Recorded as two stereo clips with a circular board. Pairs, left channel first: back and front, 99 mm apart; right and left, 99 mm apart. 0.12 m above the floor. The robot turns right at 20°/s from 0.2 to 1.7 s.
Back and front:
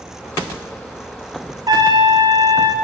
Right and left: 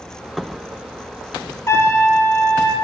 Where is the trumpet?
35° right, 1.8 m.